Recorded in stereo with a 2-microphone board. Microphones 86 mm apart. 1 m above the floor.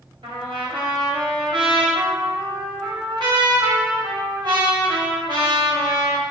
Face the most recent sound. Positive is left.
turn(degrees=-65)  # may be behind; listen again after turning